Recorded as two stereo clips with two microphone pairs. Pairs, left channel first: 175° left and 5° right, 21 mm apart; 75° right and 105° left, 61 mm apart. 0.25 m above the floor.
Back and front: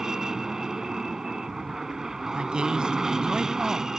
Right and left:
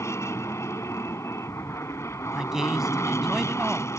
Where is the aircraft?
55° right.